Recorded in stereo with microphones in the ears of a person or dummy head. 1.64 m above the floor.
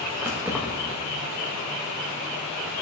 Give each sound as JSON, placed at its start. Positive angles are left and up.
{"t": 0.2, "sound": "keys jangling", "side_deg": -10, "distance_m": 1.1}